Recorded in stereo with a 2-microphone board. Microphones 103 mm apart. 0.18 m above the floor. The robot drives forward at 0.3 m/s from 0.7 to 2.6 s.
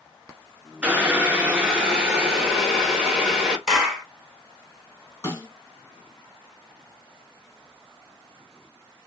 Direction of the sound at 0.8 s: 15° right (ahead or behind).